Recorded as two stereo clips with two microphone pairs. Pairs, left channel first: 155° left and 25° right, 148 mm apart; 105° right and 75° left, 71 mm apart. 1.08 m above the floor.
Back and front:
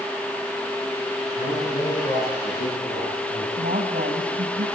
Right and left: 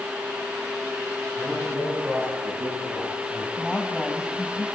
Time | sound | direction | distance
1.4 | a man speaking | 140° left | 10 m
3.6 | a woman speaking | 10° right | 5.5 m